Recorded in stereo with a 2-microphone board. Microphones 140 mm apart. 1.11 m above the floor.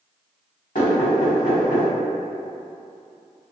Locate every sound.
0.8 s knocking: 70° left (ahead or behind), 1.6 m